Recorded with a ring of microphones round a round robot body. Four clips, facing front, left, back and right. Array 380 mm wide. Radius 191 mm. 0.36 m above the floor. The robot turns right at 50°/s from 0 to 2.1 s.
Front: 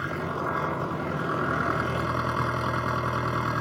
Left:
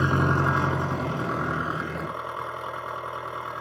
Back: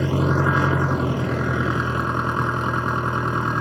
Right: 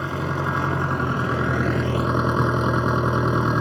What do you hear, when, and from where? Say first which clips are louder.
0.0 s an engine running: left 2 dB, back 9 dB; 150° left; by 3.6 s 105° right